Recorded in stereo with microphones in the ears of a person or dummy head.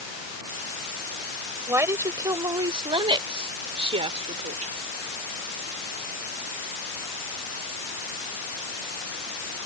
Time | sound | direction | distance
1.7 | a woman speaking | 20° right (ahead or behind) | ?